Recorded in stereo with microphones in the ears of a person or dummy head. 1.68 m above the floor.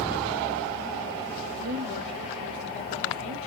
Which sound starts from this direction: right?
A woman speaking, at 1.6 s.